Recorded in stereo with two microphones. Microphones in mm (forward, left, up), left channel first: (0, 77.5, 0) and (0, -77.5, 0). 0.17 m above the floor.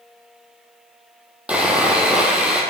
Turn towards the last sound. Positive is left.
turn(degrees=-5)  # may be behind; listen again after turning